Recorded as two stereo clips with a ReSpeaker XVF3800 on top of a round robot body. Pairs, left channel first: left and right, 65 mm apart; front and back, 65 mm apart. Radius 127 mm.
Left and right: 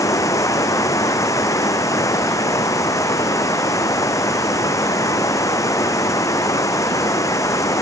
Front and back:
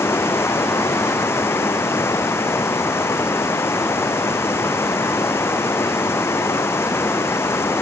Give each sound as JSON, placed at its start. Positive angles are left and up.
{"t": 0.0, "sound": "running water", "azimuth_deg": 55}